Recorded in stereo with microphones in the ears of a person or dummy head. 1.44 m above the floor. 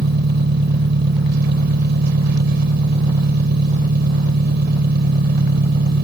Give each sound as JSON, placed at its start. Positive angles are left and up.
{"t": 0.0, "sound": "an engine running", "side_deg": -70}